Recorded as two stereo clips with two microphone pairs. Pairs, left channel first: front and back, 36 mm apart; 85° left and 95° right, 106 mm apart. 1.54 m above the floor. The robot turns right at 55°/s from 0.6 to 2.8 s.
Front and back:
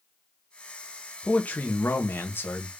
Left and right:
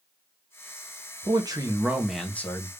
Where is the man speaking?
55° right, 0.9 m; by 2.7 s 25° left, 0.9 m.